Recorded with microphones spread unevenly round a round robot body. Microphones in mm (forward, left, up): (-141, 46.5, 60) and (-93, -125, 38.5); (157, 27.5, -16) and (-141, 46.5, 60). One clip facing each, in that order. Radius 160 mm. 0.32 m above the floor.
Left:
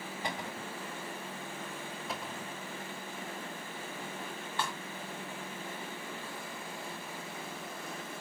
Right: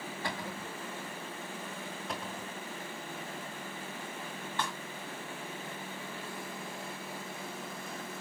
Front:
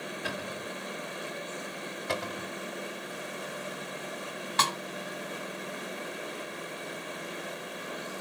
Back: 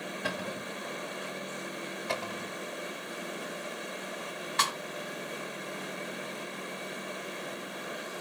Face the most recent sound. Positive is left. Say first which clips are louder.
# even, front 6 dB
turn(degrees=20)